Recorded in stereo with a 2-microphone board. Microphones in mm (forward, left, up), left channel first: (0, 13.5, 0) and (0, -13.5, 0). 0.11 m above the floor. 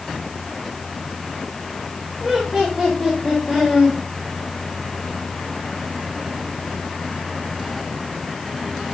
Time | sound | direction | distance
2.2 | laughter | 5° left (ahead or behind) | 8 m